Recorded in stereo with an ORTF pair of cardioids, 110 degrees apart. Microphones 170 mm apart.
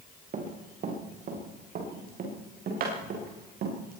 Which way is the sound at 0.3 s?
45° right.